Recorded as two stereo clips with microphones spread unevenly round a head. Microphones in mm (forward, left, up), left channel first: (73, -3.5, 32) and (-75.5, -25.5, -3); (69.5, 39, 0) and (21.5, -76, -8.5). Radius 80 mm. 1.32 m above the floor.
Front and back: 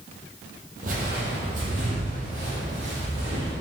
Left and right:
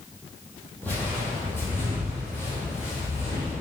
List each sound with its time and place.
0.8 s footsteps: 145° left, 3 m; by 3.5 s 135° left, 4.5 m